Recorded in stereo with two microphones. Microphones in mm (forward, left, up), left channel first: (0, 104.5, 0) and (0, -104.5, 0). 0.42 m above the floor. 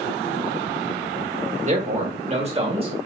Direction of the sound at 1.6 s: 35° right (ahead or behind).